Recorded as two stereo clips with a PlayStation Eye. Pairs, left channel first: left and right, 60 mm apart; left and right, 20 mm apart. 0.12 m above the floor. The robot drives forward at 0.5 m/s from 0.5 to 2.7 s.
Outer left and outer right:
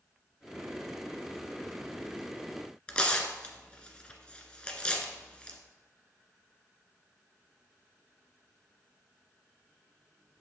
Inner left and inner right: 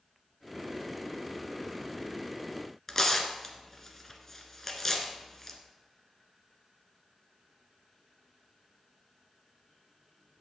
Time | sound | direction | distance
2.9 | tearing paper | 20° left (ahead or behind) | 1.6 m